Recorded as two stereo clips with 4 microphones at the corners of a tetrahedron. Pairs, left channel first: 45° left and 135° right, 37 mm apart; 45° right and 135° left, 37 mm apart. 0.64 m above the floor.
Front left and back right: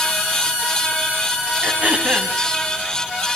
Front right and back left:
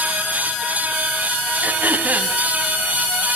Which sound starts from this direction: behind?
Throat clearing, at 1.6 s.